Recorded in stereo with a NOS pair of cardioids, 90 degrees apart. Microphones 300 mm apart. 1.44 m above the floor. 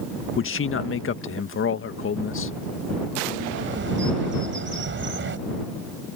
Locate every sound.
0.4 s a man speaking: 40° left
3.4 s a bird: 40° right